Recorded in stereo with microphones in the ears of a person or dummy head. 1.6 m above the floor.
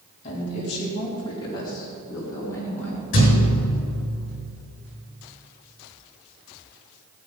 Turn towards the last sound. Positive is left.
turn(degrees=45)  # may be behind; listen again after turning